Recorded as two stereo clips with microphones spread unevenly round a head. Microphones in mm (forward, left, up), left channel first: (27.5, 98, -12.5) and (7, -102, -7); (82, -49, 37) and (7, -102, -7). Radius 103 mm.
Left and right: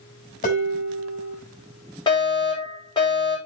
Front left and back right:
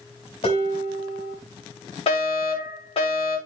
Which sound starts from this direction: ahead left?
Dishes clattering, at 0.4 s.